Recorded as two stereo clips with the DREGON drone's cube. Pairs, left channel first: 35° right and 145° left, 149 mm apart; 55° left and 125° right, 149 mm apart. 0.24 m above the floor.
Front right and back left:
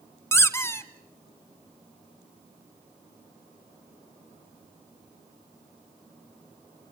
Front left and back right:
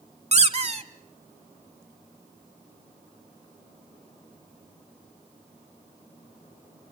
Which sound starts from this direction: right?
A squeak, at 0.3 s.